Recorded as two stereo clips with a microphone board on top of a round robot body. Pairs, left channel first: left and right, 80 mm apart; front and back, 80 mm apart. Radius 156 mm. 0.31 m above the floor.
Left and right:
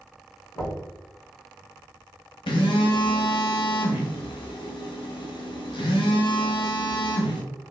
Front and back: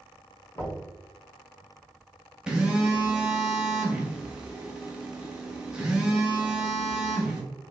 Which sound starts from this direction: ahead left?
Knocking, at 0.6 s.